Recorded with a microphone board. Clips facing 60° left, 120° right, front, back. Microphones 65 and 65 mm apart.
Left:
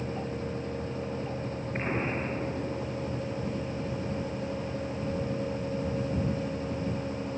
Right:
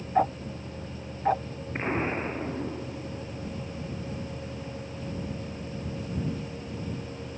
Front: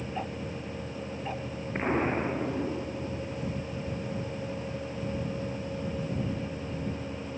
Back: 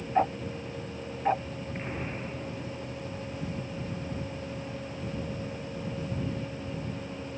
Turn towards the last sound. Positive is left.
turn(degrees=-45)